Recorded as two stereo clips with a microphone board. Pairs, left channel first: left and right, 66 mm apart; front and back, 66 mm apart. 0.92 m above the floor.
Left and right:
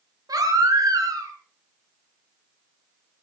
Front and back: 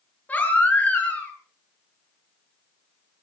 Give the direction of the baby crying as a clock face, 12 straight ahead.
2 o'clock.